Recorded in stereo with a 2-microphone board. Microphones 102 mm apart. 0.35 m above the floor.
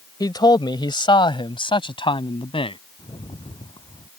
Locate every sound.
0.2 s a man speaking: 40° left (ahead or behind); by 2.8 s 65° left (ahead or behind)
3.0 s a rattle: 50° left (ahead or behind)